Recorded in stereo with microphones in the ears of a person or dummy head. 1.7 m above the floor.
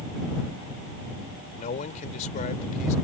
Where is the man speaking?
45° left (ahead or behind).